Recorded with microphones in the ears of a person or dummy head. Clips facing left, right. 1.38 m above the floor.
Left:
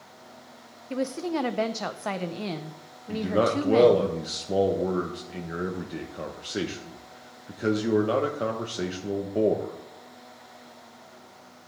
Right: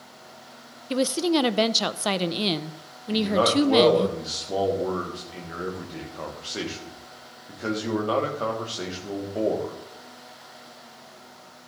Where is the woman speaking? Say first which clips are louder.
Right 6 dB; 50° right (ahead or behind), 0.6 m.